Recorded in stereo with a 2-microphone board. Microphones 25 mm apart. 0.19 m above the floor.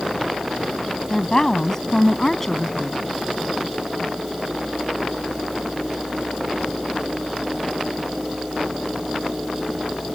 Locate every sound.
1.1 s a woman speaking: 25° left (ahead or behind); by 3.0 s 10° left (ahead or behind)